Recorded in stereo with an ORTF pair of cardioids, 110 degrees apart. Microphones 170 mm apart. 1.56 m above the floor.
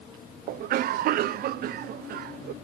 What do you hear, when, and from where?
0.5 s a cough: 65° right